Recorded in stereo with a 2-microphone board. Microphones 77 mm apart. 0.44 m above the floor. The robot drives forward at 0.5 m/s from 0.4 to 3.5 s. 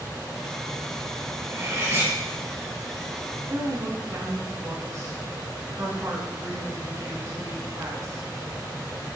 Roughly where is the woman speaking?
Right.